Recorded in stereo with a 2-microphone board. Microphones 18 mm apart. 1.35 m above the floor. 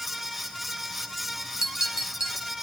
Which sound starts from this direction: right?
A clink, at 1.6 s.